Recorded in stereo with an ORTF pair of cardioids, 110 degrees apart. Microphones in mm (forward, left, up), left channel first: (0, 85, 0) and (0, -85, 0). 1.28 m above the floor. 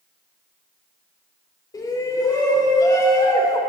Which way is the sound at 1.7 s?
25° left.